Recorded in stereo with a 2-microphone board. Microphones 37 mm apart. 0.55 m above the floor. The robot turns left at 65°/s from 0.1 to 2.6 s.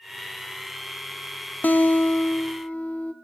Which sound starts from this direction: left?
A guitar, at 1.6 s.